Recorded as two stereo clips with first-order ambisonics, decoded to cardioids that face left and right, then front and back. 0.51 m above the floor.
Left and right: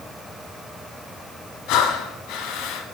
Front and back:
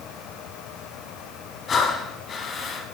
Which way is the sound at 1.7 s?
65° left.